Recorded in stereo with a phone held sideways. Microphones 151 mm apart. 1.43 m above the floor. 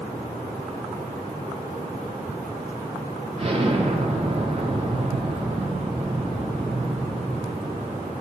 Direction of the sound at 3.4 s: 40° right (ahead or behind).